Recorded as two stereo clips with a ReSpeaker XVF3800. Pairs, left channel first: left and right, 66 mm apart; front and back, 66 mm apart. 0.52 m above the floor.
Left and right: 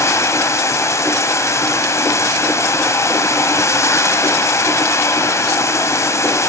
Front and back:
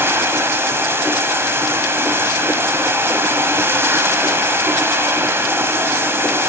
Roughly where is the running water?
Behind left.